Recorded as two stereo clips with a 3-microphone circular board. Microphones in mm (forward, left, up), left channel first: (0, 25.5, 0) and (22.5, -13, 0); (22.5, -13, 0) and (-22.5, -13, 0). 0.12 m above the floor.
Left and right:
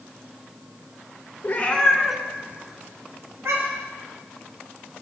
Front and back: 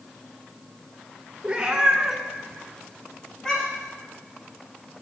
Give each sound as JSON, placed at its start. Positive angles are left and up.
{"t": 1.4, "sound": "a cat meowing", "azimuth_deg": 125, "distance_m": 0.9}